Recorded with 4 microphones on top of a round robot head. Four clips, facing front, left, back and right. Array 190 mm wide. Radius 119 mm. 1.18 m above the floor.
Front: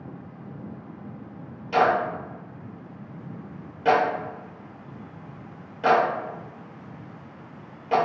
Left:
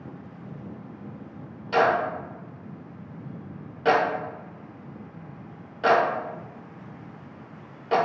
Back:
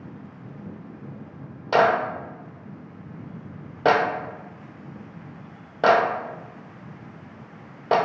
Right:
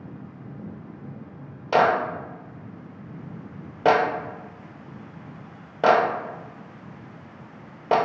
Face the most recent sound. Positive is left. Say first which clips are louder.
# right 2 dB, back 2 dB
turn(degrees=-140)